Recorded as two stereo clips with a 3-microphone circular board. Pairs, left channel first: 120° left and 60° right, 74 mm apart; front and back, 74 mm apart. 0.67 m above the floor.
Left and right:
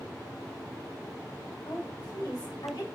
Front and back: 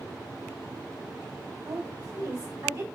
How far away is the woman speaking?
About 3 m.